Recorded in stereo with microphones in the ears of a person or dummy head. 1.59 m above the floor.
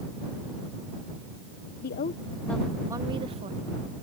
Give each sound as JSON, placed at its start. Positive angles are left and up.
{"t": 1.8, "sound": "a woman speaking", "side_deg": 50}